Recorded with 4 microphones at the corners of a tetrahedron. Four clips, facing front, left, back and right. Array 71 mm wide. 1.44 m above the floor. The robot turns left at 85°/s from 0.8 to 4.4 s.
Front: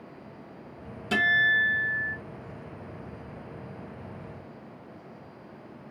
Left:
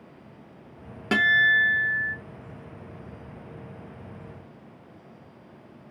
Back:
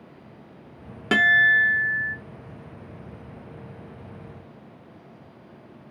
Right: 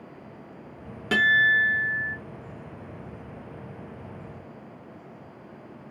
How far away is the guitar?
About 0.8 m.